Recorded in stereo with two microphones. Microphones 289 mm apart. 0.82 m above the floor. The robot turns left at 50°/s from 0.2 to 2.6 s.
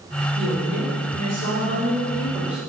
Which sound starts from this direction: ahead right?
A woman speaking, at 0.3 s.